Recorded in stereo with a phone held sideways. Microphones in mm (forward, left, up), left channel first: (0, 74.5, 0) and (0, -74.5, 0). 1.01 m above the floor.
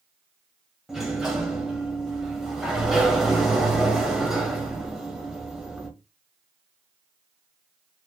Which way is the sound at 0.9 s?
5° right (ahead or behind).